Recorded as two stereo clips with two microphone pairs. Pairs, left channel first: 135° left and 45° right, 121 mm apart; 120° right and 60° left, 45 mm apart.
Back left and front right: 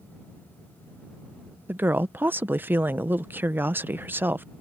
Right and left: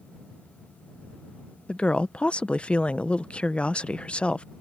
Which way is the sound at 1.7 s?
100° right.